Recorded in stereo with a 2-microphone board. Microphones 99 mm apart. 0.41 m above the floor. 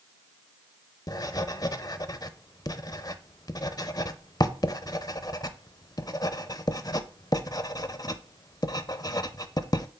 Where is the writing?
45° left (ahead or behind), 0.5 m.